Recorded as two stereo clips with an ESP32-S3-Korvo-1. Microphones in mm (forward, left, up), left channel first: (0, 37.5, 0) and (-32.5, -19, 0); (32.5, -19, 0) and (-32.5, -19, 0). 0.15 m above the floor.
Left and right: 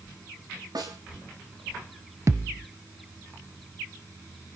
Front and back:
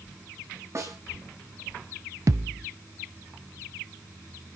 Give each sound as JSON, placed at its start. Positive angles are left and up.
{"t": 0.8, "sound": "a snare drum", "azimuth_deg": -135, "distance_m": 6.5}
{"t": 2.3, "sound": "a thud", "azimuth_deg": -155, "distance_m": 0.8}